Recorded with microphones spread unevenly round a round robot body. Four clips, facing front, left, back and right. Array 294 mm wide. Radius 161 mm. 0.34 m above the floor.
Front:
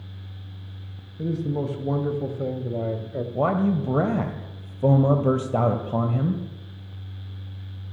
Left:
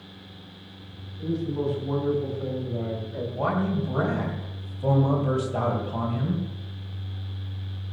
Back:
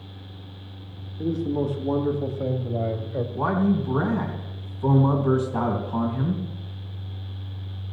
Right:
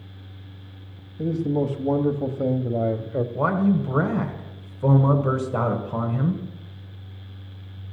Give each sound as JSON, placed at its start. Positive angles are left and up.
{"t": 1.2, "sound": "a man speaking", "azimuth_deg": -65, "distance_m": 2.5}
{"t": 3.4, "sound": "a man speaking", "azimuth_deg": -25, "distance_m": 2.0}